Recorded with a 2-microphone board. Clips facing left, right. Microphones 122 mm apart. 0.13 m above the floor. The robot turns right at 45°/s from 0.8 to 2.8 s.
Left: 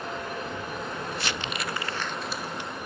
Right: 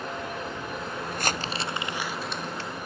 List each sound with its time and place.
1.1 s crumpling: 50° right (ahead or behind); by 2.7 s 20° left (ahead or behind)